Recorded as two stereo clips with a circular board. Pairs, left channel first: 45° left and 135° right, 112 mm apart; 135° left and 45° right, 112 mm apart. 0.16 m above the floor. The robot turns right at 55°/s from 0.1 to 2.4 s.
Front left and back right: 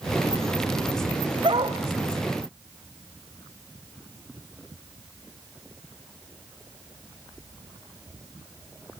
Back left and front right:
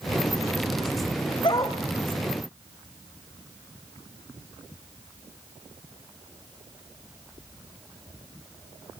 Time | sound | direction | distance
1.4 | a dog barking | straight behind | 2.5 m